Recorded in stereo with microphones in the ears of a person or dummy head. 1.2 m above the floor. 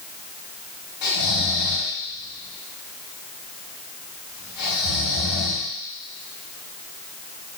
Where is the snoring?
50° left (ahead or behind), 2.5 m.